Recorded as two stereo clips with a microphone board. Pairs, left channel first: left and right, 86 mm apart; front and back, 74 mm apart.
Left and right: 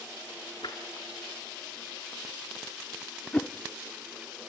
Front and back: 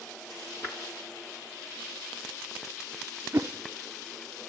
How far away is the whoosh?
About 0.7 m.